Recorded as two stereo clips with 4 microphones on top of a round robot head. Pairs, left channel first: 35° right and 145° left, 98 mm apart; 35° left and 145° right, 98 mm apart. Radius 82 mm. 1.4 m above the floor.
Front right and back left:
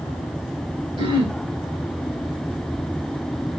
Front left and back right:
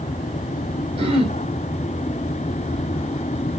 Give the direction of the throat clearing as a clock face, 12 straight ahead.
6 o'clock.